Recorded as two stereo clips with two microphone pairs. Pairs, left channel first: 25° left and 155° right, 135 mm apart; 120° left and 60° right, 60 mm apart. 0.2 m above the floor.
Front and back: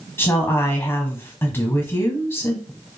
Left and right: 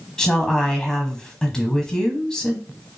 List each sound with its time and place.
0.2 s a woman speaking: 60° left, 1.0 m